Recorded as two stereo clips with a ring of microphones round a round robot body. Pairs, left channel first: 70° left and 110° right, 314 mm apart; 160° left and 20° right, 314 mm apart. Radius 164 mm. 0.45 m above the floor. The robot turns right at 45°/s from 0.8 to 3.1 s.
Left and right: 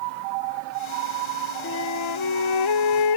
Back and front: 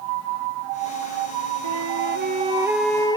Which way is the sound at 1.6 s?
15° left.